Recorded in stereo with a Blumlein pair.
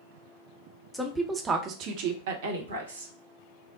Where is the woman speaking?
5° left, 0.8 m; by 3.1 s 75° right, 1.3 m.